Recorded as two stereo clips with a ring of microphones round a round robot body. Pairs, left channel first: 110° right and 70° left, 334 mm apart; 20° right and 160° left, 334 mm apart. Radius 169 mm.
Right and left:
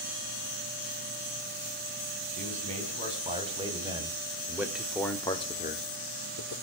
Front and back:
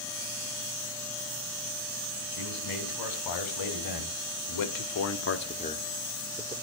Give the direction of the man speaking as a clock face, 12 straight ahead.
12 o'clock.